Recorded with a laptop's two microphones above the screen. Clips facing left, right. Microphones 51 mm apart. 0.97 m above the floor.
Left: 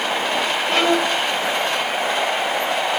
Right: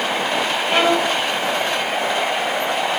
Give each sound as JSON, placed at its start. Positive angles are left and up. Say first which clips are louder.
{"t": 0.7, "sound": "a violin", "louder": "right 1 dB", "side_deg": -25, "distance_m": 4.5}